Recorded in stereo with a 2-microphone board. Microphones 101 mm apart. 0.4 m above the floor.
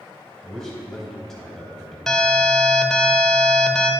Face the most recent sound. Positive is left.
turn(degrees=5)  # may be behind; listen again after turning